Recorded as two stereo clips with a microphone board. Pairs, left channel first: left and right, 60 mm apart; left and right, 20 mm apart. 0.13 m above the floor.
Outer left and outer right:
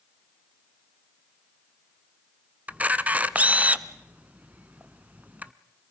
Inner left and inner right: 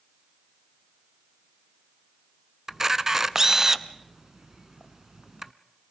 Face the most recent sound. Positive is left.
turn(degrees=-25)  # may be behind; listen again after turning